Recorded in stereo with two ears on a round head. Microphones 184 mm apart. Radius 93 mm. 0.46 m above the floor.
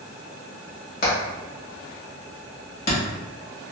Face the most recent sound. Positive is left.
turn(degrees=50)  # may be behind; listen again after turning